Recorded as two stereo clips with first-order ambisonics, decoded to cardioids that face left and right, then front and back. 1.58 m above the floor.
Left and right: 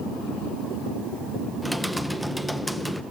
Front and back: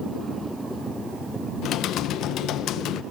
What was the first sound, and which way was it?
Typing on a keyboard, 5° right.